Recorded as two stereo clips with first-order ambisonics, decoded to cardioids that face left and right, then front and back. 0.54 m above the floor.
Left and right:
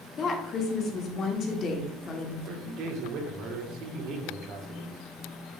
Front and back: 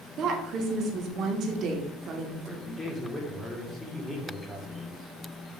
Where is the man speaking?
80° right, 1.4 m.